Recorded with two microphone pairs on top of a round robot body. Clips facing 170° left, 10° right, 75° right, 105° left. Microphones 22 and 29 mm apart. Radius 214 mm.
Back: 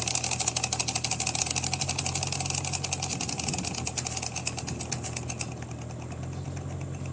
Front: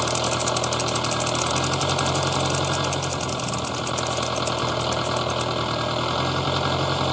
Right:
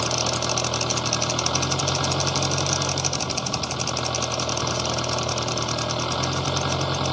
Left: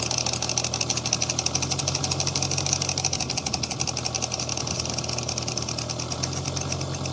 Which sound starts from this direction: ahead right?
An engine running, at 0.0 s.